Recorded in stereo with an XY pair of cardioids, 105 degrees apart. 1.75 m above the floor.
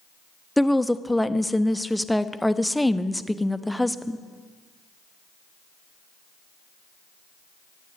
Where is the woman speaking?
5° left, 0.6 m.